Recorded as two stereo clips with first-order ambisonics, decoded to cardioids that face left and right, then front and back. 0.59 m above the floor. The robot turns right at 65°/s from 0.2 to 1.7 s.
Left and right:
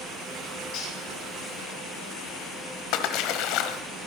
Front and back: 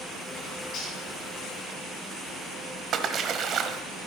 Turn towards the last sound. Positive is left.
turn(degrees=120)